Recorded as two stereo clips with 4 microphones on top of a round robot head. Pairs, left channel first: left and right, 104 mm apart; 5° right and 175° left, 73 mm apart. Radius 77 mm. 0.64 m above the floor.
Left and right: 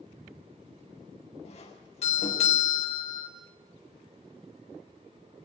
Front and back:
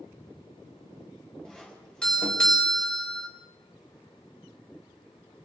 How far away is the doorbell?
About 6 m.